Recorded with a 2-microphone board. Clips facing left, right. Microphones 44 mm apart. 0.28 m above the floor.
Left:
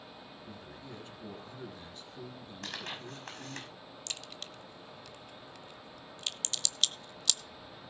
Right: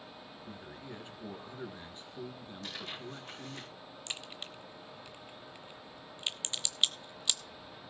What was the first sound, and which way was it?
A man speaking, 25° right (ahead or behind).